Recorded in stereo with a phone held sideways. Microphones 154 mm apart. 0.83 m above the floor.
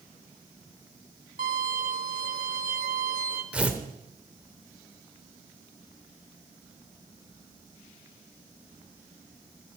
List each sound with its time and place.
1.4 s a violin: 75° right (ahead or behind), 1.7 m
3.5 s tearing paper: 10° right (ahead or behind), 1.1 m